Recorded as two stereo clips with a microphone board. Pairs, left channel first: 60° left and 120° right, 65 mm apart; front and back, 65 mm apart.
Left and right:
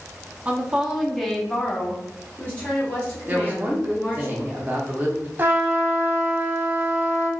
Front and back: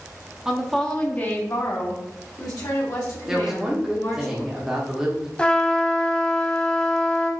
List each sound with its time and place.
0.5 s a woman speaking: 125° right, 0.6 m; by 4.3 s straight ahead, 2 m
3.3 s a woman speaking: 110° right, 0.7 m
5.4 s a trumpet: 70° right, 0.6 m